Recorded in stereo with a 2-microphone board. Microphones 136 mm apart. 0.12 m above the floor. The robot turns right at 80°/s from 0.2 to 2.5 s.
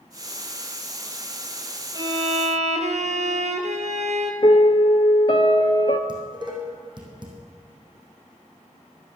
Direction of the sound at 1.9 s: 145° right.